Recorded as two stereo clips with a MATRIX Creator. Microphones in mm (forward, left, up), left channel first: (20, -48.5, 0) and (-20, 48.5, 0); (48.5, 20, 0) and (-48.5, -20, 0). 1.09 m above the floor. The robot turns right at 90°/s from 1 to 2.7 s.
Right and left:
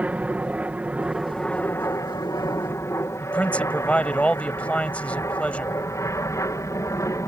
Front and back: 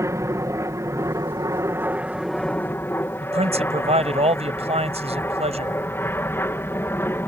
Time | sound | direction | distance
0.0 | an aircraft | straight behind | ?
3.2 | a man speaking | 145° right | ?